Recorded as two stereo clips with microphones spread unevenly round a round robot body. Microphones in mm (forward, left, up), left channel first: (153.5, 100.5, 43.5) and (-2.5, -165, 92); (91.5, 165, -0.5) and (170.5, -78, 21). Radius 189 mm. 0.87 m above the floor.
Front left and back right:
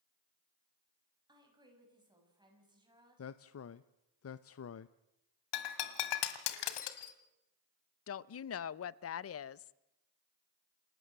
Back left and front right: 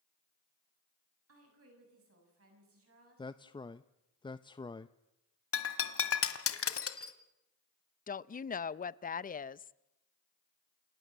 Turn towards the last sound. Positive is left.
turn(degrees=60)